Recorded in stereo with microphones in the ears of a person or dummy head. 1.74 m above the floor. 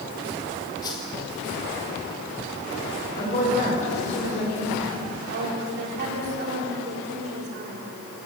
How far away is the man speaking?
About 7.5 m.